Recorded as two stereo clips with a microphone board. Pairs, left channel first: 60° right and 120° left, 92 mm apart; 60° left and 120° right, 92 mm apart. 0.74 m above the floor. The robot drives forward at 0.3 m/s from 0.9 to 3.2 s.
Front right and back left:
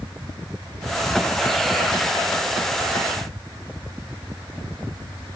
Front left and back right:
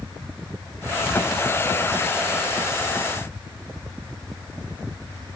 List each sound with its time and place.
Only background noise.